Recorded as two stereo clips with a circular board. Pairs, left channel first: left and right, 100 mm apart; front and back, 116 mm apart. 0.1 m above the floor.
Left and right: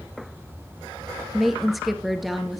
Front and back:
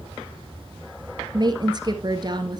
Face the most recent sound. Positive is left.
turn(degrees=180)